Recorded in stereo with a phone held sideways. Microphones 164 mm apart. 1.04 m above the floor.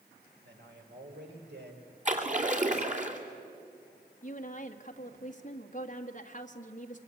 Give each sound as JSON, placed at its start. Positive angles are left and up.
{"t": 0.4, "sound": "a man speaking", "side_deg": -85, "distance_m": 4.5}
{"t": 2.0, "sound": "a splash", "side_deg": -45, "distance_m": 3.0}
{"t": 4.2, "sound": "a woman speaking", "side_deg": 45, "distance_m": 1.9}